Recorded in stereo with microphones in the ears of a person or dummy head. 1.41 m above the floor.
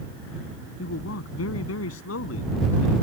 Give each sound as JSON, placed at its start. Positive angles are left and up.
{"t": 0.8, "sound": "a man speaking", "side_deg": 80}